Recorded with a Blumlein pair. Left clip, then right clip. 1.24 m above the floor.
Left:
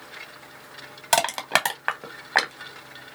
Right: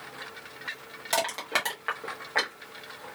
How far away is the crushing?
About 0.8 m.